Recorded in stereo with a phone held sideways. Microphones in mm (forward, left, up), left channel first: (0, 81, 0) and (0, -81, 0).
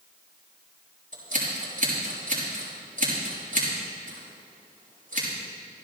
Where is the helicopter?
I don't hear a helicopter.